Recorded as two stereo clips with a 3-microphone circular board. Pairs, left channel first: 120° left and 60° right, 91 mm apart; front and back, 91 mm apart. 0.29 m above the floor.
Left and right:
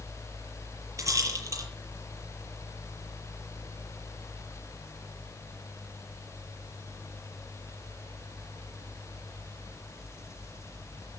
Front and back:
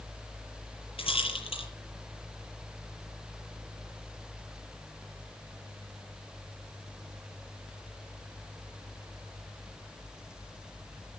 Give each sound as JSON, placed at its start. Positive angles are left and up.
{"t": 1.0, "sound": "a rattle", "azimuth_deg": -5, "distance_m": 8.5}